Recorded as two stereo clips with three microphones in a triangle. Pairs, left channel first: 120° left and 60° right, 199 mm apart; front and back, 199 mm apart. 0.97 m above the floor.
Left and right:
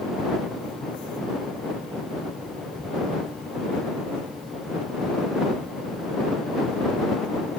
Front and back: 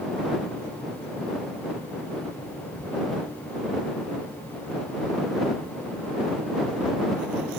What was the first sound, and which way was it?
Only background noise.